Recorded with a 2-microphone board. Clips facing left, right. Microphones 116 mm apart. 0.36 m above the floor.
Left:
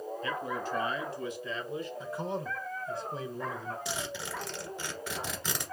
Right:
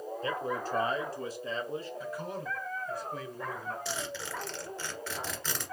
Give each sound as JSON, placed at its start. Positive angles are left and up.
{"t": 0.2, "sound": "a man speaking", "side_deg": -35, "distance_m": 1.3}
{"t": 2.0, "sound": "a man speaking", "side_deg": 25, "distance_m": 1.0}
{"t": 3.9, "sound": "a zipper", "side_deg": 15, "distance_m": 1.6}